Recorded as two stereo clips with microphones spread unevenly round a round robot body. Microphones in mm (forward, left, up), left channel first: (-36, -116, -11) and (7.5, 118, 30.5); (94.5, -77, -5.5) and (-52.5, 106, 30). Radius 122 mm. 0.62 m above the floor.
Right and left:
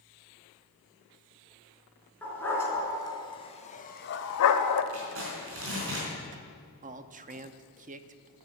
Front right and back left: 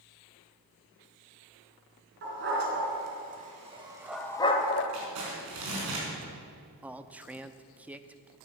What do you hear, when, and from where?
2.2 s a dog barking: 175° left, 3 m; by 4.8 s 95° right, 1.0 m
4.9 s crumpling: 115° left, 5 m
6.8 s a man speaking: 35° left, 0.6 m